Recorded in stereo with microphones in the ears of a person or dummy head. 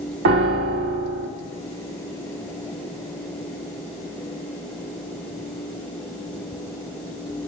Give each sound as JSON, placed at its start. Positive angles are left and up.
{"t": 0.2, "sound": "a piano", "side_deg": -65, "distance_m": 1.4}